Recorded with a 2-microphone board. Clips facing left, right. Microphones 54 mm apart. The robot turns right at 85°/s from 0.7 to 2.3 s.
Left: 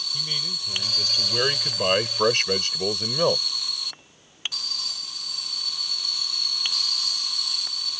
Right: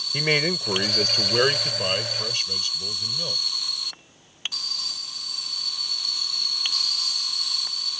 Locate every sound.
0.1 s a man speaking: 80° right; by 3.4 s 55° left